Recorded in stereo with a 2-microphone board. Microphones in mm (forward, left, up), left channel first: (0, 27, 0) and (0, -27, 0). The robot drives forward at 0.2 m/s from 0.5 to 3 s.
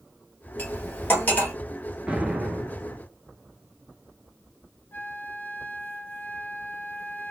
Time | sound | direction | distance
0.6 | cutlery clinking | 35° left (ahead or behind) | 1.2 m
2.1 | an explosion | 15° right (ahead or behind) | 0.8 m
4.9 | a flute | 40° left (ahead or behind) | 0.6 m